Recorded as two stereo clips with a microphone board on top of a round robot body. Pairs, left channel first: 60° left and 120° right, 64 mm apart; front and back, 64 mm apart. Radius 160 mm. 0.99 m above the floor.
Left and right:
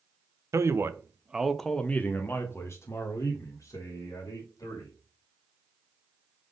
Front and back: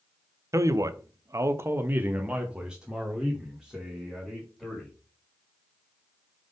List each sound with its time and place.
0.5 s a man speaking: 150° right, 1.0 m; by 4.9 s 85° left, 2.5 m